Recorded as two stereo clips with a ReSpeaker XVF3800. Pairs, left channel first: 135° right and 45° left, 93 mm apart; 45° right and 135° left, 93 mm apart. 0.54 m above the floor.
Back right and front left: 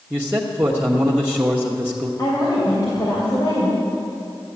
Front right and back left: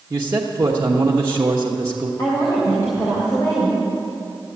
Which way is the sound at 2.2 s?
90° right.